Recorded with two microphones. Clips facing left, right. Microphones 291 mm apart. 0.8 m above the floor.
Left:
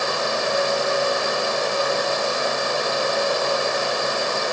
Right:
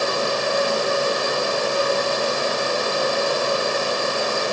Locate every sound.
Only background noise.